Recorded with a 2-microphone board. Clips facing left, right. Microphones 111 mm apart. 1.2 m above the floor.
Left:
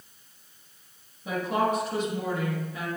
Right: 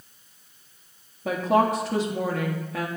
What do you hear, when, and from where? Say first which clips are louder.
1.2 s a woman speaking: right 5 dB; 90° right, 1.6 m